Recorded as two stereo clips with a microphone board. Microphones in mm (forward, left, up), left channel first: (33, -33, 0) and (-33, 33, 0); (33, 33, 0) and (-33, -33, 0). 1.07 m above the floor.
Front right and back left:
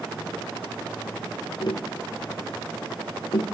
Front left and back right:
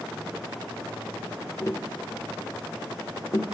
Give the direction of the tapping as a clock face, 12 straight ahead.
12 o'clock.